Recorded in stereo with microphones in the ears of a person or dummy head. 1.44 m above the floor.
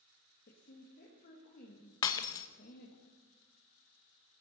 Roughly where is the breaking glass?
Centre.